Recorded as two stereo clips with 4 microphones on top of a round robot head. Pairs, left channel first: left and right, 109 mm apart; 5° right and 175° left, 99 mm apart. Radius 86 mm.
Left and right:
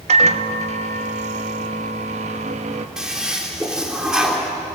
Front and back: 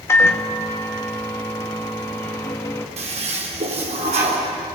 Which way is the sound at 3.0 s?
175° right.